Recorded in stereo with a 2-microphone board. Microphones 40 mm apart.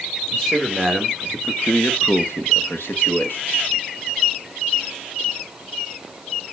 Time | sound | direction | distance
0.3 | a man speaking | centre (ahead or behind) | 1.9 m